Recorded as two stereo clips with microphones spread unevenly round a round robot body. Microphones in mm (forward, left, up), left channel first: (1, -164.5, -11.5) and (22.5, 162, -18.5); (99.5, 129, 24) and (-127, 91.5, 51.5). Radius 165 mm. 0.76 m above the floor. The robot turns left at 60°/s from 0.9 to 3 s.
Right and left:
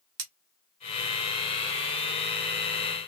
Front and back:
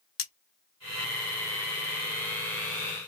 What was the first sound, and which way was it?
Cutlery clinking, 45° left.